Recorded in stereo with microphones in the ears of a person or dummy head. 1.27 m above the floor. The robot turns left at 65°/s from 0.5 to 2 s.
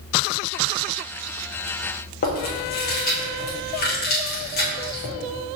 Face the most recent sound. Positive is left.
turn(degrees=50)  # may be behind; listen again after turning